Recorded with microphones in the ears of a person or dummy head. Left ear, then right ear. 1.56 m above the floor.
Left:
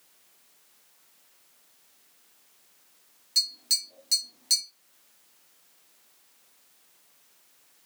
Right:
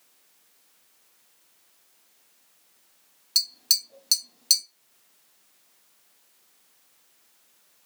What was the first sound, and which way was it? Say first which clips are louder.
Tapping: right 2 dB; 40° right (ahead or behind).